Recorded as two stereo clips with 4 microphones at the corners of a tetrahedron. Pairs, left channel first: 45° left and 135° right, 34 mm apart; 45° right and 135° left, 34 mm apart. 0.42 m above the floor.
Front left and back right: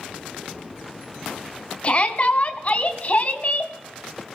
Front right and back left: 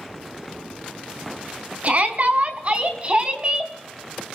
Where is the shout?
95° left, 3.5 m; by 3.7 s 80° left, 3 m.